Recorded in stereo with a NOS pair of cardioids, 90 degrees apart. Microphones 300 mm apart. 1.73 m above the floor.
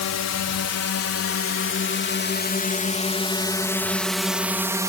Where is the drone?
60° left; by 4.9 s 10° right.